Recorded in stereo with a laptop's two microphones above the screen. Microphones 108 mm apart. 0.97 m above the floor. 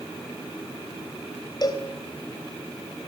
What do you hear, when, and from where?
1.6 s a cowbell: 40° left (ahead or behind), 3 m